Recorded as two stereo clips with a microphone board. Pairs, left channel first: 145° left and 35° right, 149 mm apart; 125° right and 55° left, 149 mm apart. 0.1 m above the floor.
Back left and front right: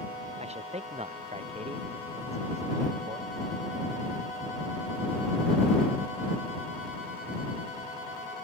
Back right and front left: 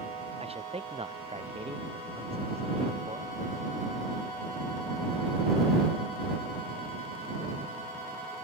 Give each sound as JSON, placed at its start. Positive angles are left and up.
{"t": 0.4, "sound": "a man speaking", "azimuth_deg": 10}